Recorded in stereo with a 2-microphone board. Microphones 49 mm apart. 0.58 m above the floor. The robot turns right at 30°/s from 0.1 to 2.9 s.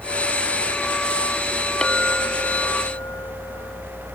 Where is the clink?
20° left; by 4.2 s 50° left.